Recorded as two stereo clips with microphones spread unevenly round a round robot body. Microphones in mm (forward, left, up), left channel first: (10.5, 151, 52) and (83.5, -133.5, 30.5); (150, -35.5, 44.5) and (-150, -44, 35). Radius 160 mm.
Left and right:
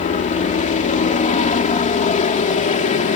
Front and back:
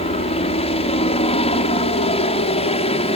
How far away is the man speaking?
I don't hear a man speaking.